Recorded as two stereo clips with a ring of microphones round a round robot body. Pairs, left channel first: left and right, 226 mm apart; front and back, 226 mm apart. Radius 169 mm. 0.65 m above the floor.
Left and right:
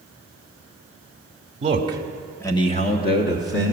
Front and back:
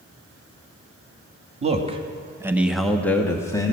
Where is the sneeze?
No sneeze in this recording.